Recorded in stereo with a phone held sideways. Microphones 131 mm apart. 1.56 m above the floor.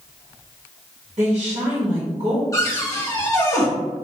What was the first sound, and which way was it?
A woman speaking, 55° right (ahead or behind).